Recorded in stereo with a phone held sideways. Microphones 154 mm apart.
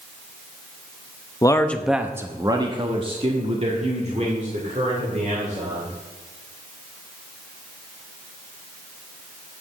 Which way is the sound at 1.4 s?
25° left (ahead or behind).